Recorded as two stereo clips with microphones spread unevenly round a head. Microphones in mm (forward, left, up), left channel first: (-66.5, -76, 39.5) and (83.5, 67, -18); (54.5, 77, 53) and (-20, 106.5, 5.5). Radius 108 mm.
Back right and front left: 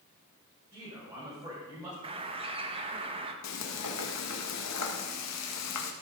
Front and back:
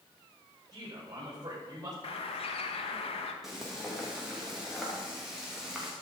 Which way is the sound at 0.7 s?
120° left.